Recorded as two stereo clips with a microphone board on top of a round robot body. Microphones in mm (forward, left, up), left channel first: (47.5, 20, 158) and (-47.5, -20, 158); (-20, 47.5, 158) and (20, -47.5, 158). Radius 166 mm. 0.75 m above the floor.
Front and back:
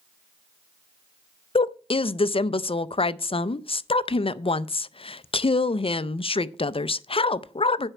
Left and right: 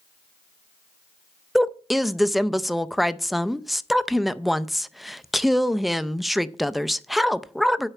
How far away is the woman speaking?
About 0.6 m.